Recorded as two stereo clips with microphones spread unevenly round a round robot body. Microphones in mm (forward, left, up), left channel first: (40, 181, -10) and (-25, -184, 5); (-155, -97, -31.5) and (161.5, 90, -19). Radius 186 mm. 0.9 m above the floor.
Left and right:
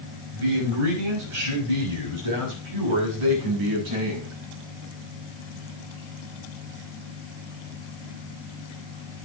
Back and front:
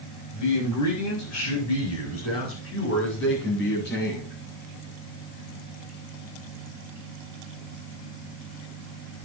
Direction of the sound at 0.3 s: 110° right.